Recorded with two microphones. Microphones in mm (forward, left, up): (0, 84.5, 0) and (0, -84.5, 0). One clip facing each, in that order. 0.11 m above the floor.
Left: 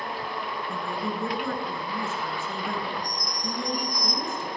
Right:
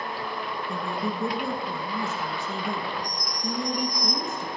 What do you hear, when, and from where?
0.7 s a woman speaking: 20° right (ahead or behind), 1.7 m